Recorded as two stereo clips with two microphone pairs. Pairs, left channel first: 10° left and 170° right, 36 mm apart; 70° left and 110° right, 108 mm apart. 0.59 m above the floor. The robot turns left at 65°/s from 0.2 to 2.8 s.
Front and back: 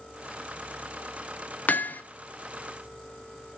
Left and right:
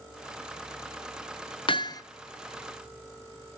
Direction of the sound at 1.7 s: 40° left.